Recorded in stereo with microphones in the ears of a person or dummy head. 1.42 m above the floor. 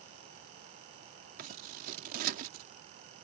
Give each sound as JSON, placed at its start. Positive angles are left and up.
{"t": 1.4, "sound": "scissors", "side_deg": -55}